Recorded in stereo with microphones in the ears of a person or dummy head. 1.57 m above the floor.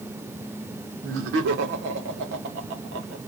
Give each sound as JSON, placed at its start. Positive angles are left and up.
{"t": 1.0, "sound": "laughter", "side_deg": -75, "distance_m": 1.3}